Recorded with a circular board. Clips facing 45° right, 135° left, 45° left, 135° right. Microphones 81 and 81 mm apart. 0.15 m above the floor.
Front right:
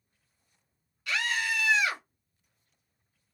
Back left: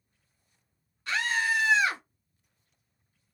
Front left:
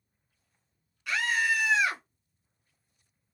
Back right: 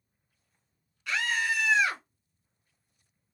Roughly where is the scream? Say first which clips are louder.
Back left 3 dB, front left 2 dB; behind left.